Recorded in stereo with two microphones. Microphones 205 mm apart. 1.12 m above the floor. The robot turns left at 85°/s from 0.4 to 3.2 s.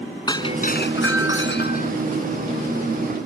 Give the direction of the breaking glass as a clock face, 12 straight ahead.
7 o'clock.